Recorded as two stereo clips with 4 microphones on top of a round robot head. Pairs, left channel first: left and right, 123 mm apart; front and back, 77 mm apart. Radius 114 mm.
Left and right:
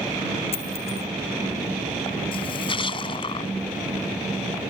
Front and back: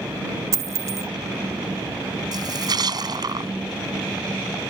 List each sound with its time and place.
0.5 s a dropped coin: 140° left
2.3 s a splash: 145° left